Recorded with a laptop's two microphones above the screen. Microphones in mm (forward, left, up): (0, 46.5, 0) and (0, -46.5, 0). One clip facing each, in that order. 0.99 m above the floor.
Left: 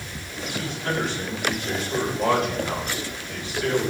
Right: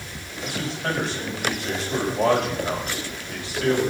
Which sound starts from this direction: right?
A man speaking, at 0.4 s.